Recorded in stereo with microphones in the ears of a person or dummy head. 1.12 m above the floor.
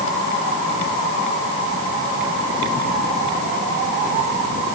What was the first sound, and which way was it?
Only background noise.